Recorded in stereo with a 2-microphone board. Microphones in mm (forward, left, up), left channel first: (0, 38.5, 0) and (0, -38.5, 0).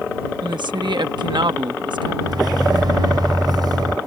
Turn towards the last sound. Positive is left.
turn(degrees=-65)  # may be behind; listen again after turning